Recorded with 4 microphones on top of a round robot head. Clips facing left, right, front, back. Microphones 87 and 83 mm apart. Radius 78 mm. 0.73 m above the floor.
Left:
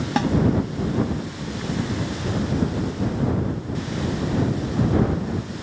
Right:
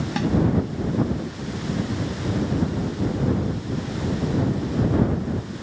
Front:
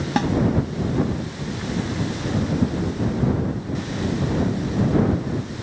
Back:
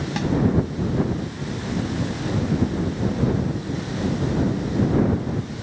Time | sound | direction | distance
0.2 | a snare drum | 45° left | ?